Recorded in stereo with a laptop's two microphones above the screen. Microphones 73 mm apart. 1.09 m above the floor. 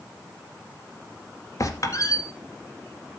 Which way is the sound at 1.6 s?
45° left (ahead or behind).